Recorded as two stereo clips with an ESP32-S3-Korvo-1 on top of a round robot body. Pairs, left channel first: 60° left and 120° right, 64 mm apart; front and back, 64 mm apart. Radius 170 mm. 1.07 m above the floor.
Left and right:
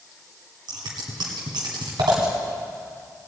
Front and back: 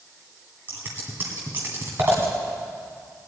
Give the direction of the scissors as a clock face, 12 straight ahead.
4 o'clock.